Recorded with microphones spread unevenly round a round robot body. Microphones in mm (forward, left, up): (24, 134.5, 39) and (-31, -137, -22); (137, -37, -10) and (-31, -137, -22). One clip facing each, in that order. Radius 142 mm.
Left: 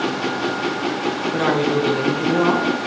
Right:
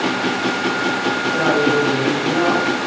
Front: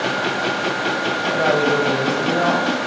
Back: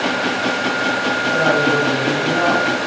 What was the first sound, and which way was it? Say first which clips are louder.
A man speaking: right 2 dB, even; 90° left.